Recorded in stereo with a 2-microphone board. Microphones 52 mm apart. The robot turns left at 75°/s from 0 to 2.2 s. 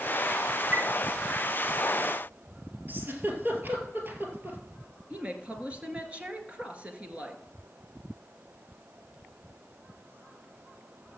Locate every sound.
0.7 s a chime: 35° right (ahead or behind), 0.9 m; by 0.9 s 45° right (ahead or behind), 0.9 m
2.9 s a giggle: 40° right (ahead or behind), 2 m
5.1 s a woman speaking: 25° right (ahead or behind), 1.6 m